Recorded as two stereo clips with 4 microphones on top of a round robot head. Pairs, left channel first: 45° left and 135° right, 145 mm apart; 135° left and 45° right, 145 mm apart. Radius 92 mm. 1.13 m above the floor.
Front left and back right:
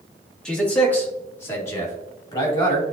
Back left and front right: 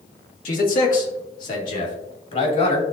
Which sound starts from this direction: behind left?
A man speaking, at 0.5 s.